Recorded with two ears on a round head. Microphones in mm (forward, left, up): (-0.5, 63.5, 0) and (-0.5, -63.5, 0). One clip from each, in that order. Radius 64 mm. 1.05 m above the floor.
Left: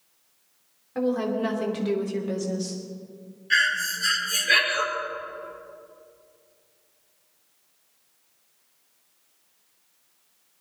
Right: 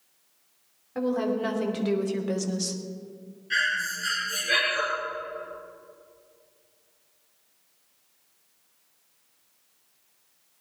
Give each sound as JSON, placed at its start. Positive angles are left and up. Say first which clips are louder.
{"t": 0.9, "sound": "a woman speaking", "louder": "left 1 dB", "side_deg": 5, "distance_m": 2.5}
{"t": 3.5, "sound": "breathing", "louder": "left 4 dB", "side_deg": 35, "distance_m": 4.5}